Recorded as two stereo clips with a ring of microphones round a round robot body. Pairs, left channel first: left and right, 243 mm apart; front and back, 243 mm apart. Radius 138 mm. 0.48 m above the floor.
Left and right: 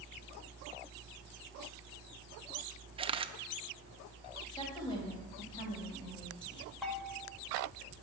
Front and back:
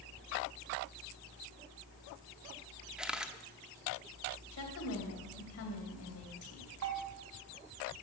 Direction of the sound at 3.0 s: 100° right.